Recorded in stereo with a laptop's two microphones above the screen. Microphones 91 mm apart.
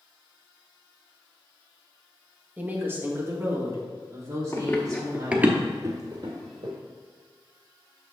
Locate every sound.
2.6 s a woman speaking: 20° right (ahead or behind), 1.2 m; by 5.5 s 45° right (ahead or behind), 3 m
4.5 s running footsteps: 30° left (ahead or behind), 1.1 m; by 6.7 s 60° right (ahead or behind), 1.9 m